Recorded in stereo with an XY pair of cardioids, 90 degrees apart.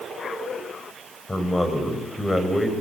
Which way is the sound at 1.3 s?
20° left.